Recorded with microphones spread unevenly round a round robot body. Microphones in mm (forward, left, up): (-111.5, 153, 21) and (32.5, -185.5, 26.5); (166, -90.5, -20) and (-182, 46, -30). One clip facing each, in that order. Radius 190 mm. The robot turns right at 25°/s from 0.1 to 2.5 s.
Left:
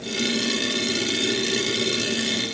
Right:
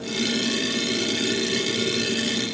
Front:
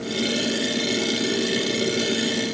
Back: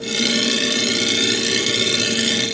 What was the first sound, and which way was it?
Only background noise.